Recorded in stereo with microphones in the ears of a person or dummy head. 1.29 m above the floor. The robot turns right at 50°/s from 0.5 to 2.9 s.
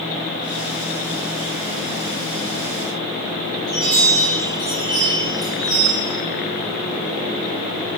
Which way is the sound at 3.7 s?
25° right (ahead or behind).